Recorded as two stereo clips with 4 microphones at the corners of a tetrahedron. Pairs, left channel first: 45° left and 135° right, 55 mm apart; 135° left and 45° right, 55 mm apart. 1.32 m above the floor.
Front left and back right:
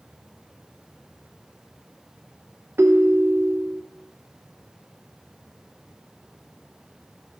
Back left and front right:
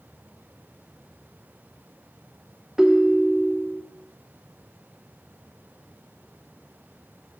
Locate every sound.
2.8 s a ringtone: 125° right, 0.7 m